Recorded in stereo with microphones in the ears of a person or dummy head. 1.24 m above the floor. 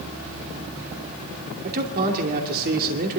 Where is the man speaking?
50° right (ahead or behind), 2.5 m.